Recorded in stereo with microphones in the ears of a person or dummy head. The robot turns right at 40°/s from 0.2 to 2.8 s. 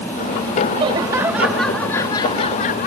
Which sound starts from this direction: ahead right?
Laughter, at 0.7 s.